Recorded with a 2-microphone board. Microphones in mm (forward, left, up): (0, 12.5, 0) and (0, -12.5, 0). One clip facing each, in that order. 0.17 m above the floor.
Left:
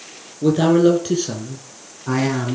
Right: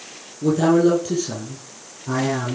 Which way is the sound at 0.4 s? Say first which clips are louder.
Left 2 dB; 45° left (ahead or behind).